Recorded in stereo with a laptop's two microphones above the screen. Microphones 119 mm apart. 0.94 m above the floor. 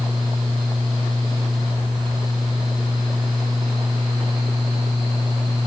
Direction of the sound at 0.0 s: 40° right (ahead or behind).